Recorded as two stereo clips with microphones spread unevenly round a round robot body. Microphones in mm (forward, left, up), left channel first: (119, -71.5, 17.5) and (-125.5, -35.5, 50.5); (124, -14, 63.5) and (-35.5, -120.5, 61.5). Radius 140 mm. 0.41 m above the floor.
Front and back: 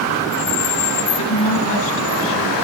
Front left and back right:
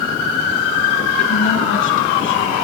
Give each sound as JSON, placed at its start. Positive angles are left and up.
{"t": 1.2, "sound": "a woman speaking", "azimuth_deg": 25, "distance_m": 4.0}